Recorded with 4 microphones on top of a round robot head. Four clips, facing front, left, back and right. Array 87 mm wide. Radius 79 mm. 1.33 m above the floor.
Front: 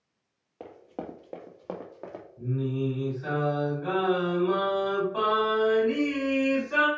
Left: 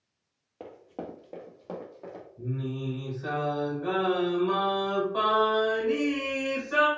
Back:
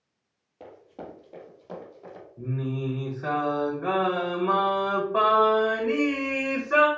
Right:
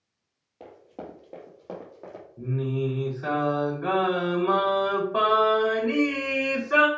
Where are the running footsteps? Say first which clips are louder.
Left 1 dB, front 3 dB; 35° left, 1.6 m; by 2.2 s 10° right, 2.5 m.